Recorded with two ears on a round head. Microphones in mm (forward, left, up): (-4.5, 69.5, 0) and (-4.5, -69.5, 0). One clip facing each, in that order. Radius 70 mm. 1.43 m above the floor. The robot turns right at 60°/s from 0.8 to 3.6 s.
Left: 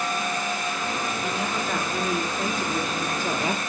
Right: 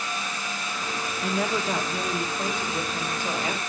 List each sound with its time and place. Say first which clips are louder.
1.2 s a woman speaking: right 1 dB; 50° right, 3 m; by 3.6 s 95° left, 3 m